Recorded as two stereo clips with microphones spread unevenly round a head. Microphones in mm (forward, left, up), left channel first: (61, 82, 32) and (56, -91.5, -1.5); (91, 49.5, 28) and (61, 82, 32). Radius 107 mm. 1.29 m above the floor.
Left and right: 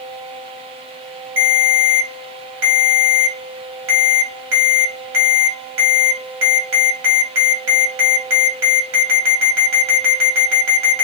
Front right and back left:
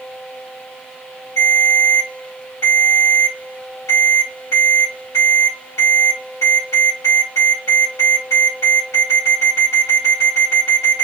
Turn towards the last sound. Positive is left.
turn(degrees=-105)